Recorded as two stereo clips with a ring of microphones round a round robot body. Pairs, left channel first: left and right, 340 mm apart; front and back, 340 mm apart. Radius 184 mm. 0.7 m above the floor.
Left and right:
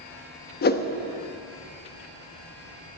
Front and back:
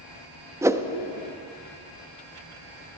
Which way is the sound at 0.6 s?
105° left.